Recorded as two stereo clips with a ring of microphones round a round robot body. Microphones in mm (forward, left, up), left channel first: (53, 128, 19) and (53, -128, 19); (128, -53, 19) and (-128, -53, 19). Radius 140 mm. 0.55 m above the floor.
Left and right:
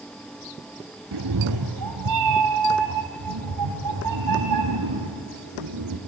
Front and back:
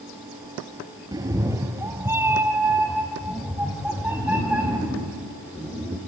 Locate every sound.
1.1 s a cat meowing: 105° right, 1.3 m; by 6.0 s 95° right, 4.5 m